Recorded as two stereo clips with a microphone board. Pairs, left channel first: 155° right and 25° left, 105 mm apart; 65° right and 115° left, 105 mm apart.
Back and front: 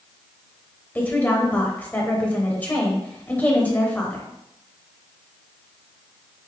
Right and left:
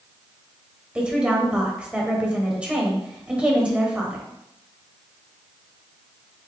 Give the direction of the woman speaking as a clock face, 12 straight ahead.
6 o'clock.